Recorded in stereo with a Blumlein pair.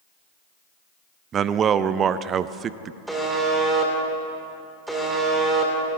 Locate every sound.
1.3 s a man speaking: 25° right, 0.5 m
3.1 s a buzzer: 5° right, 2.5 m